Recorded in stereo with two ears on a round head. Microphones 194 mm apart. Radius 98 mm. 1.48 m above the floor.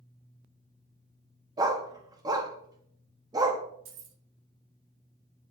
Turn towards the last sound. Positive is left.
turn(degrees=-65)  # may be behind; listen again after turning